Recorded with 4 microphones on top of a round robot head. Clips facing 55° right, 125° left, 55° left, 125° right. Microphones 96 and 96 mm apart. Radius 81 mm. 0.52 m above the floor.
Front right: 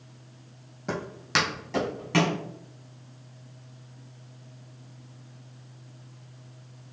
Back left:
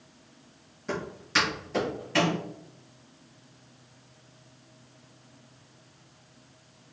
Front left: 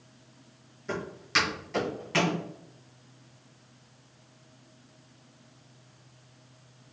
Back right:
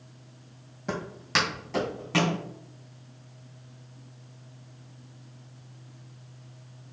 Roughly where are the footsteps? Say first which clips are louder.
Front right 1 dB, back right 1 dB; right.